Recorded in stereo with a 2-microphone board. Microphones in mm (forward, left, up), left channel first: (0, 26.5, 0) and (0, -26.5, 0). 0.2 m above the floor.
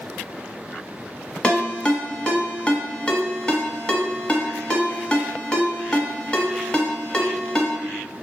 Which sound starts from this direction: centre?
A ringtone, at 1.4 s.